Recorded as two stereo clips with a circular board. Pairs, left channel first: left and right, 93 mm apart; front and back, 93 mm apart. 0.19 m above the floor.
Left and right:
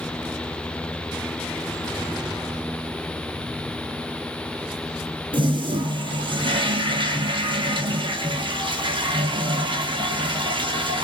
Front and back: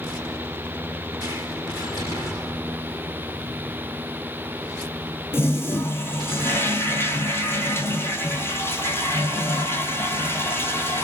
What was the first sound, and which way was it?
A toilet flushing, 65° right.